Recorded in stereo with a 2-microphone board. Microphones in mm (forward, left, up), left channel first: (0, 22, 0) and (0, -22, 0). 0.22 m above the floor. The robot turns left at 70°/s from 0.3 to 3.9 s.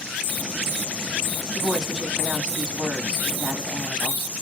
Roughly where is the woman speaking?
Centre.